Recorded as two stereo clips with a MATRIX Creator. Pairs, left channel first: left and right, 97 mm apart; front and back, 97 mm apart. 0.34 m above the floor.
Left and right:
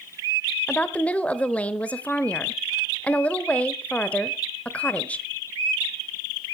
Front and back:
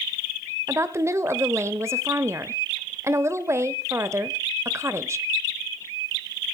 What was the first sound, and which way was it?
A woman speaking, 155° left.